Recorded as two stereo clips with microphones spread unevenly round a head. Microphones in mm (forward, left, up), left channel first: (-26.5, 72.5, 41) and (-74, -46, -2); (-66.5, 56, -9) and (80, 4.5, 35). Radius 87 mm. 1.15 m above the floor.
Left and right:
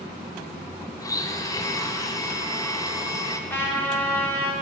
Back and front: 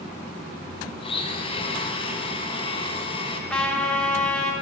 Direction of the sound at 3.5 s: 55° left.